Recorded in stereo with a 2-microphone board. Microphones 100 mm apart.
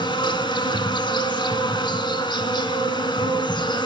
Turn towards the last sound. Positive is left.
turn(degrees=50)  # may be behind; listen again after turning